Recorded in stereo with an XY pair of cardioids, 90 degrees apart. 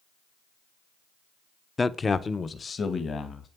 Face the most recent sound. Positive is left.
turn(degrees=50)